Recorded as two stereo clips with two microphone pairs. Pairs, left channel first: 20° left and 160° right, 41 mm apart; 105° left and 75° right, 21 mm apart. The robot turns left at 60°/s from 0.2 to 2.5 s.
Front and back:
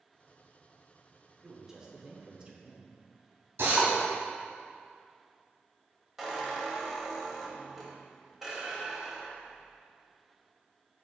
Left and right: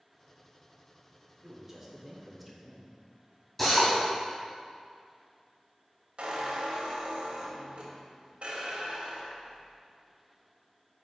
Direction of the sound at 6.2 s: 75° right.